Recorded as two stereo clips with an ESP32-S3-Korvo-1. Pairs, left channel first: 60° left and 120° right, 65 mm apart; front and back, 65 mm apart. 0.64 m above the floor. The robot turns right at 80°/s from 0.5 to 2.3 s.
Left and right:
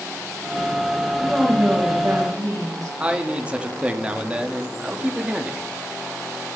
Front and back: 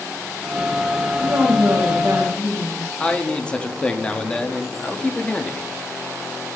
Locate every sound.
1.2 s a woman speaking: 135° left, 2.5 m; by 2.9 s 135° right, 2.5 m
3.0 s a man speaking: 60° right, 0.9 m